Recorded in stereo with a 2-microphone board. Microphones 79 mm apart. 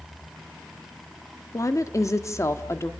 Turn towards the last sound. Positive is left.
turn(degrees=35)  # may be behind; listen again after turning